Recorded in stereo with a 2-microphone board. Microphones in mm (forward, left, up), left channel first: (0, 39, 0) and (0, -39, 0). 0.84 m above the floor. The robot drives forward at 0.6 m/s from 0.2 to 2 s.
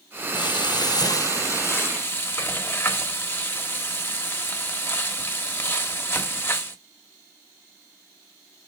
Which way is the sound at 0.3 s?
75° left (ahead or behind).